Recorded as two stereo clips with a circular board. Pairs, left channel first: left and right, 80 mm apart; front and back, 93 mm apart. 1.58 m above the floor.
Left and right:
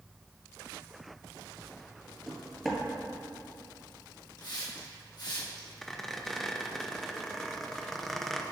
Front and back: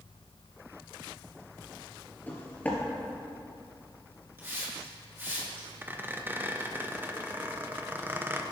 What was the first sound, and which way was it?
Footsteps, 5° left.